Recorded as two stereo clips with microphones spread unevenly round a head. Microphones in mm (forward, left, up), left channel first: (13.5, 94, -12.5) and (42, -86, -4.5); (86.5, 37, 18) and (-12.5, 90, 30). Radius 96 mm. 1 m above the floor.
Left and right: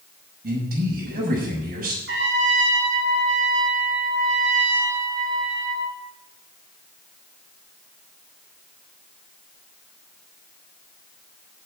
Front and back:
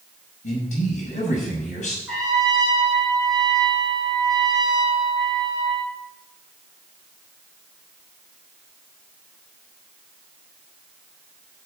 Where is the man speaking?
45° right, 6 m.